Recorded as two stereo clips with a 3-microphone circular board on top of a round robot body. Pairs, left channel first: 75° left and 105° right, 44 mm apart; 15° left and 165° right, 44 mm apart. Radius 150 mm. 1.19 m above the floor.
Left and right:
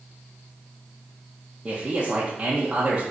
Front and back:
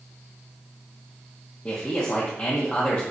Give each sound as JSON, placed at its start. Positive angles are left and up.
{"t": 1.6, "sound": "a man speaking", "azimuth_deg": -35, "distance_m": 1.0}